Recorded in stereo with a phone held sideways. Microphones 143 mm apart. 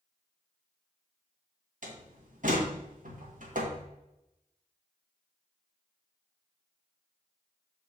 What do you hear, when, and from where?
1.8 s a door slam: 65° right (ahead or behind), 1.7 m